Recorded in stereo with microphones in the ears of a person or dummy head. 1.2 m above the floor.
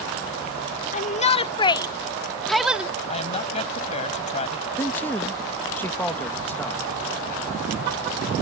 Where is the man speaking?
10° left (ahead or behind).